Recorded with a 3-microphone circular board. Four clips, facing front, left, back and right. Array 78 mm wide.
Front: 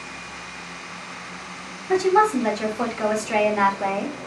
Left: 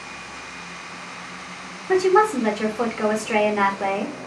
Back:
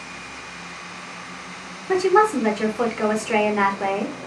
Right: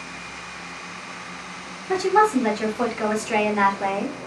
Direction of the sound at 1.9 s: 135° left.